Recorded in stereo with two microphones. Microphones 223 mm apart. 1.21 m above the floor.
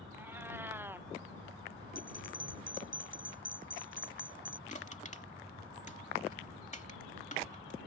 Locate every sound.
0.1 s a cat meowing: 10° right (ahead or behind)
1.9 s a bell: 65° left (ahead or behind)
4.7 s crushing: 35° left (ahead or behind)